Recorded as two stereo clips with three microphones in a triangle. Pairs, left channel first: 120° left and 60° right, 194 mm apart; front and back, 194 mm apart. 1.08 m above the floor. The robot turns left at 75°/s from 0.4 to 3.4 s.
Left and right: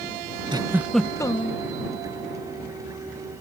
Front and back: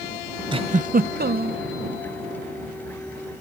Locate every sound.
0.5 s a giggle: 120° right; by 1.6 s 160° left